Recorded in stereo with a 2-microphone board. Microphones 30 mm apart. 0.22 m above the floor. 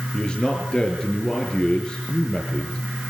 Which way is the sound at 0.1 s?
25° left (ahead or behind).